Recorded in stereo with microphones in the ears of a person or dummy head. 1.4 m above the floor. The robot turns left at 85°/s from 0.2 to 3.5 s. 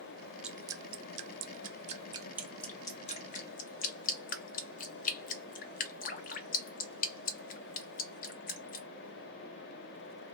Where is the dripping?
5° right (ahead or behind), 0.6 m; by 8.9 s 45° left (ahead or behind), 0.6 m.